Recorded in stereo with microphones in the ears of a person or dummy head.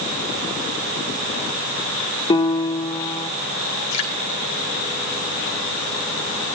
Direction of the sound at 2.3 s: 30° left (ahead or behind).